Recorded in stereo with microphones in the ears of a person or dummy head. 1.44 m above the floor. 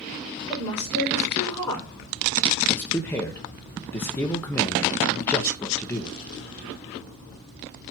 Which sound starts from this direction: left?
A woman speaking, at 0.5 s.